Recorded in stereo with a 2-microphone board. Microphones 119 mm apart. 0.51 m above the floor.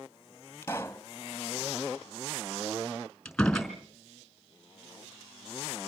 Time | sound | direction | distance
0.6 | a pop | 20° left (ahead or behind) | 1.0 m
3.2 | a door slam | 5° left (ahead or behind) | 4.5 m